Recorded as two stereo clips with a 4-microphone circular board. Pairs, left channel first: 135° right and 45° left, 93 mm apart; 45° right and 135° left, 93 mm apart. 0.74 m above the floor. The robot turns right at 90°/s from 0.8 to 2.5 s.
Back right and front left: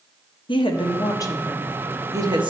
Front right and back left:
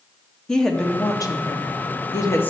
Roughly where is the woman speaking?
Behind right.